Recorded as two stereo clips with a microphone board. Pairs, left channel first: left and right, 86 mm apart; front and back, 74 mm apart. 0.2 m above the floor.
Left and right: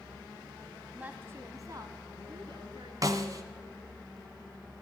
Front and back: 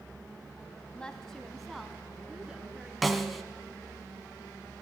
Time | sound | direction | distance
0.9 | a woman speaking | 45° right | 1.2 m
3.0 | a snare drum | 90° right | 1.5 m